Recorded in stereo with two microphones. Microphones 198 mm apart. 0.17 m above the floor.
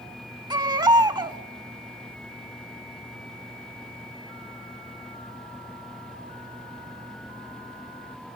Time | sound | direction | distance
0.5 | a baby crying | 20° right (ahead or behind) | 0.6 m